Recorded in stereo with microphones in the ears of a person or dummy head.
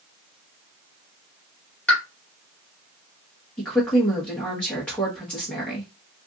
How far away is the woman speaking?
About 1.1 m.